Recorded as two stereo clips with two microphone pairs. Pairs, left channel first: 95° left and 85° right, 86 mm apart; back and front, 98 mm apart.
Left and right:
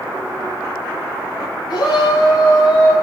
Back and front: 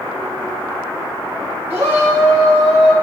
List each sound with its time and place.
1.7 s a shout: 65° left, 3 m; by 2.9 s 50° left, 3.5 m